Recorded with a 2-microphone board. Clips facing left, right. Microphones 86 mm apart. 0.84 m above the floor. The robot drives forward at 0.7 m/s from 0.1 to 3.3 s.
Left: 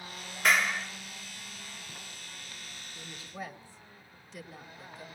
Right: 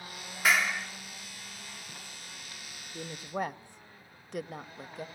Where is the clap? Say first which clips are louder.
Even; centre (ahead or behind), 1.8 m.